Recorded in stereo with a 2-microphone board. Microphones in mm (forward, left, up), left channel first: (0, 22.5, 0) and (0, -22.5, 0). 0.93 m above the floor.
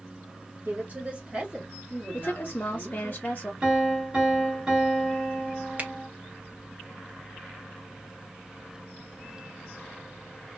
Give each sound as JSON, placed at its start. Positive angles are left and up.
{"t": 0.7, "sound": "a woman speaking", "side_deg": -45, "distance_m": 1.2}
{"t": 2.1, "sound": "a woman speaking", "side_deg": 40, "distance_m": 0.5}
{"t": 3.6, "sound": "a piano", "side_deg": -25, "distance_m": 1.6}
{"t": 5.8, "sound": "a finger snap", "side_deg": -40, "distance_m": 0.6}